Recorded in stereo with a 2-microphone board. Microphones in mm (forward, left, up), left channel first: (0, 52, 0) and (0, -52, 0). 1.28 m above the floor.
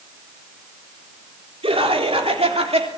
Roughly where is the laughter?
Right.